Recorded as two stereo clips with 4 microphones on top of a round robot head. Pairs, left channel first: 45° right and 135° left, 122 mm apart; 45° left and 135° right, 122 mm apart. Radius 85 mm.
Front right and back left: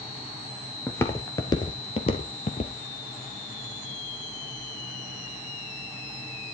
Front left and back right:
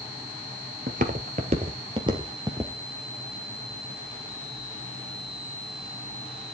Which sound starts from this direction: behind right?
Footsteps, at 0.9 s.